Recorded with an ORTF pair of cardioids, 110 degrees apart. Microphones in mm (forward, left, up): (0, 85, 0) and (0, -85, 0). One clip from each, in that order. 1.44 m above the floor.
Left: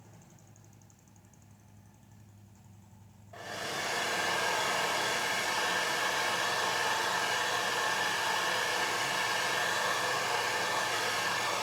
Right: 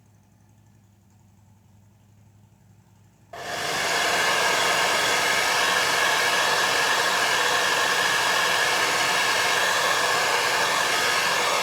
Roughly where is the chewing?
No chewing in this recording.